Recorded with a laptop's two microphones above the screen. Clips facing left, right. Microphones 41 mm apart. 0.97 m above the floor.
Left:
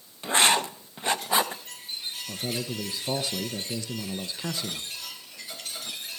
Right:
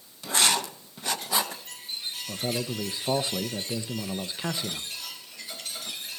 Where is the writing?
30° left (ahead or behind), 0.6 m.